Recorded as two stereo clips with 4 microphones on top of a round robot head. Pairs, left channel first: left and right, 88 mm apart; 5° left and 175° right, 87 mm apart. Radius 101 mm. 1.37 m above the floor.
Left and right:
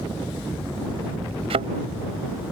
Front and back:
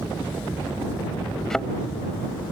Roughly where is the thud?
Right.